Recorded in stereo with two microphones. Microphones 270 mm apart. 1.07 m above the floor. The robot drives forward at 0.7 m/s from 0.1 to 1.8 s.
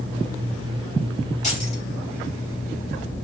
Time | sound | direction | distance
1.4 | keys jangling | 25° left (ahead or behind) | 4 m